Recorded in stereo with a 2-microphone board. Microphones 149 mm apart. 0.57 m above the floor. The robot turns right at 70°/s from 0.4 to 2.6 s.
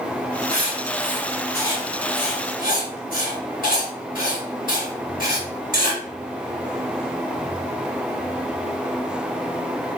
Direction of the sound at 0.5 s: 45° right (ahead or behind).